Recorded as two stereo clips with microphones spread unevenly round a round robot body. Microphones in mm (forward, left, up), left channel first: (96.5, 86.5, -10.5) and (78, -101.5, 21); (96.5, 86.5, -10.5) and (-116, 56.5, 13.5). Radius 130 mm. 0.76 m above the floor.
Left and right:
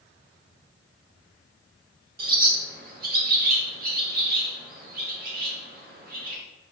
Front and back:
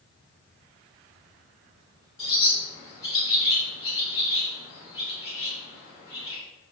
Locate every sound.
2.2 s a bird: 60° right, 0.7 m